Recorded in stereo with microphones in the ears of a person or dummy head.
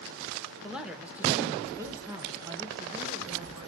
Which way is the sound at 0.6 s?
Centre (ahead or behind).